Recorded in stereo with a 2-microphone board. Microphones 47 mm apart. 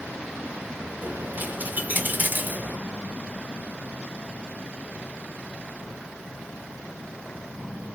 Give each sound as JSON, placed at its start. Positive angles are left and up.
{"t": 1.0, "sound": "a dropped coin", "side_deg": -40, "distance_m": 0.6}